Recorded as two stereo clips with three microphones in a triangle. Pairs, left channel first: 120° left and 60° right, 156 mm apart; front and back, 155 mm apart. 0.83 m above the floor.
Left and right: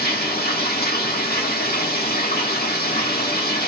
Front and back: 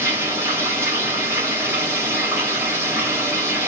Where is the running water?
105° left, 0.9 m.